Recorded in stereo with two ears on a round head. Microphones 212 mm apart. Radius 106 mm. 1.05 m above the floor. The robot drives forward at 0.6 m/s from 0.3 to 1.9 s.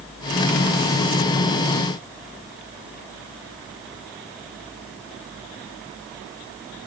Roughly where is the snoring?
I don't hear snoring.